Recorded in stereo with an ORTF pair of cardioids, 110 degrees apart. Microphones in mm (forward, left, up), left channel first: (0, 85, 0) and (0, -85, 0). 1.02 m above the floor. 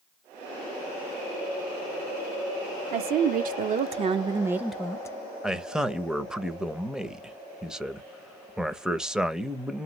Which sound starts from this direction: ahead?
A man speaking, at 5.4 s.